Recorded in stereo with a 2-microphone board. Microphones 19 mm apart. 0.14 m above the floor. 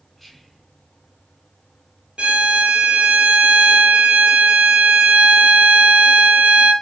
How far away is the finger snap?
No finger snap in this recording.